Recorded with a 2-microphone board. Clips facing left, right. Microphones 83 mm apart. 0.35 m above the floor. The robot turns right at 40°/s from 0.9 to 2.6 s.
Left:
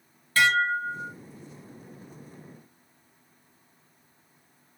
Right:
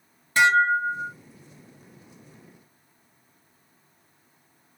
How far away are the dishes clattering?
About 1.5 m.